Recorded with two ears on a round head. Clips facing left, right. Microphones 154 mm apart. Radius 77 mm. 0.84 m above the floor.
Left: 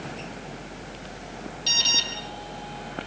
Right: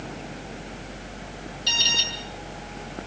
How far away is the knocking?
No knocking in this recording.